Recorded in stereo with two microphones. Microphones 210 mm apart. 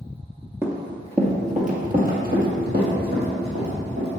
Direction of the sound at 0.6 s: 10° right (ahead or behind).